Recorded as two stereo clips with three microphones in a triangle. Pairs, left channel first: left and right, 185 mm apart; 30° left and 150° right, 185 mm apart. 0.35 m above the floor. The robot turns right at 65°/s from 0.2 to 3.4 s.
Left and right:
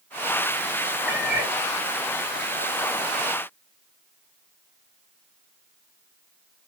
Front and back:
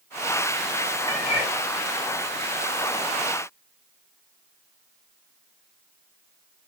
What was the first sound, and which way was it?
A cat meowing, 100° left.